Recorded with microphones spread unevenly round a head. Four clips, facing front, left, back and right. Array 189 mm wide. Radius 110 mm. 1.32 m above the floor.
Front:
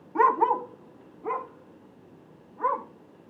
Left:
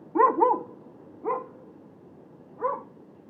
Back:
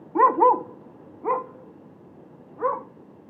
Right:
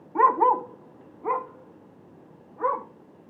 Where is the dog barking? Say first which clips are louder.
Right 1 dB, back 4 dB; 145° right, 0.8 m; by 2.9 s 130° right, 3.5 m.